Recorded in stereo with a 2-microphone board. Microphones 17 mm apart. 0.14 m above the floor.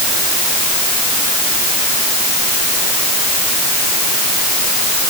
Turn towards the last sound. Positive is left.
No sound to turn to.